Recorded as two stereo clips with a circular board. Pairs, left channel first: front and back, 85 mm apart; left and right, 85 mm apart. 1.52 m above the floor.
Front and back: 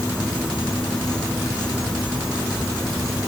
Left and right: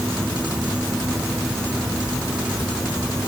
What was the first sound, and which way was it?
Only background noise.